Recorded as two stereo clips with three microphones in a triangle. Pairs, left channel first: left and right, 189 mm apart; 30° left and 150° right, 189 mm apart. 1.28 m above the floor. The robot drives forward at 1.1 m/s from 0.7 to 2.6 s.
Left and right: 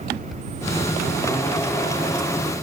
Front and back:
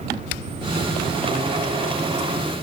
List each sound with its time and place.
Only background noise.